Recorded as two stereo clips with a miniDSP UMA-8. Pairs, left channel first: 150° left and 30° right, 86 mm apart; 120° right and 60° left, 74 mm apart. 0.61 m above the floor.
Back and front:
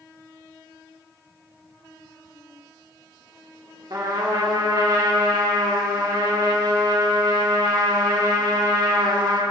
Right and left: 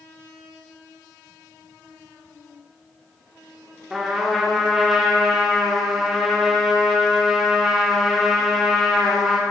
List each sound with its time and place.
3.9 s a trumpet: 25° right, 1.2 m